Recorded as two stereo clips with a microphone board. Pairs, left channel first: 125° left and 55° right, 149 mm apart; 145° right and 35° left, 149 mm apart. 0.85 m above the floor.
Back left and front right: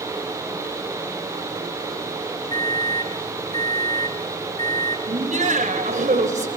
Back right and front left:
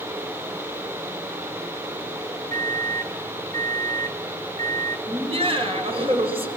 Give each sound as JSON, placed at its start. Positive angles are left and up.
{"t": 2.5, "sound": "a microwave", "azimuth_deg": 65, "distance_m": 1.2}
{"t": 5.1, "sound": "laughter", "azimuth_deg": -20, "distance_m": 4.5}